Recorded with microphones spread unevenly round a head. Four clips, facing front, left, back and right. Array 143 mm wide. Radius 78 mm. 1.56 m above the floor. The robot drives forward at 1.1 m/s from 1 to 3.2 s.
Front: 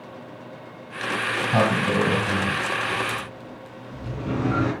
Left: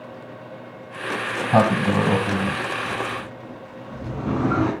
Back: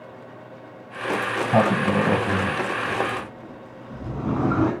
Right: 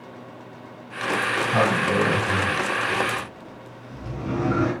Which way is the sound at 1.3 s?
125° left.